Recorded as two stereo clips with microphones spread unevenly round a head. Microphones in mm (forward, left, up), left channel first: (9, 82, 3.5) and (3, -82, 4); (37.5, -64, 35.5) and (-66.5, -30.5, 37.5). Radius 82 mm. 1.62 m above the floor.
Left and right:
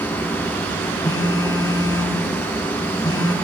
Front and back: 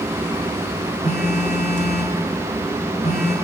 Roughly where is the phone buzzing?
Ahead.